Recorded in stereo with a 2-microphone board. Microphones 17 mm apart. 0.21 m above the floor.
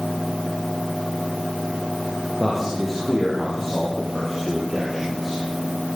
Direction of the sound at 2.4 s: 5° left (ahead or behind).